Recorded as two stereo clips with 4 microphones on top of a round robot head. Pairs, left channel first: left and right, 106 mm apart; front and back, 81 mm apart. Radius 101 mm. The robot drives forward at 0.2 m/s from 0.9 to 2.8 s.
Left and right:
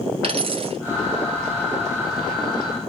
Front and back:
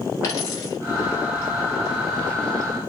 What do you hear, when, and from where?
0.2 s a dropped coin: 60° right, 1.1 m